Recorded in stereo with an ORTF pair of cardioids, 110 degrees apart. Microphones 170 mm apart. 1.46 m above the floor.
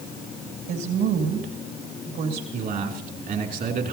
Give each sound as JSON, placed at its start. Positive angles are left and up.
{"t": 0.7, "sound": "a woman speaking", "azimuth_deg": -70, "distance_m": 2.5}
{"t": 2.5, "sound": "a man speaking", "azimuth_deg": -60, "distance_m": 2.5}